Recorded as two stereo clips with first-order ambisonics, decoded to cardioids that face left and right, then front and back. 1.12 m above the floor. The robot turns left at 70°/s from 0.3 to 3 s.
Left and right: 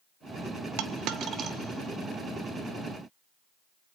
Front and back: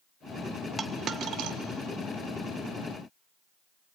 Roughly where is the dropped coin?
Right.